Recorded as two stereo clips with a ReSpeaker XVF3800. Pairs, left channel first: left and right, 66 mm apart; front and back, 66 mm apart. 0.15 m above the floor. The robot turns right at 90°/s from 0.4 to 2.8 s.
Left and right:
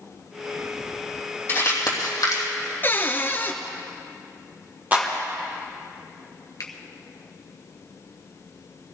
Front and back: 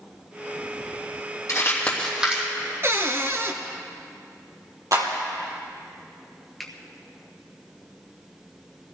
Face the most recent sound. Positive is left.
turn(degrees=85)